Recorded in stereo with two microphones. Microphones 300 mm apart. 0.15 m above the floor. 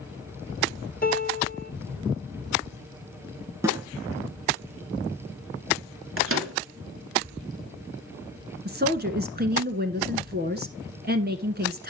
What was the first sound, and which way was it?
A piano, 30° left (ahead or behind).